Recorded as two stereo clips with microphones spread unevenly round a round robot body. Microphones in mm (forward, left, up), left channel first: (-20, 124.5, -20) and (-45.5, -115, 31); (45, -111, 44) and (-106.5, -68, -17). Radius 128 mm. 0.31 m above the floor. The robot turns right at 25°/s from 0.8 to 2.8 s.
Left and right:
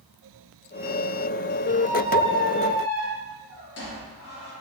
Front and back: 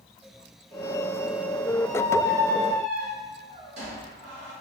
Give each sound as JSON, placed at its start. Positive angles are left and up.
{"t": 1.8, "sound": "a squeak", "azimuth_deg": 95, "distance_m": 1.1}